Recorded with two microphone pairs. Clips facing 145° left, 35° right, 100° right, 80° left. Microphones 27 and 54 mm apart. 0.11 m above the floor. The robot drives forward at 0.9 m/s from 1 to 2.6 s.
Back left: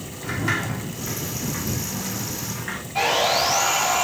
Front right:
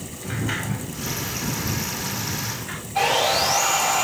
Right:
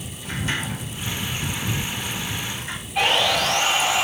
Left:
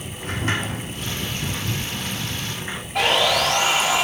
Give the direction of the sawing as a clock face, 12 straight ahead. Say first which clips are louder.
Even, left 1 dB; 10 o'clock.